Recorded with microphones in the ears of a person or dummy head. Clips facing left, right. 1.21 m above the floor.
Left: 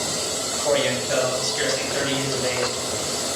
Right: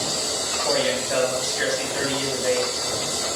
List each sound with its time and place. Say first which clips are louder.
0.6 s a man speaking: left 2 dB; 55° left (ahead or behind), 3.5 m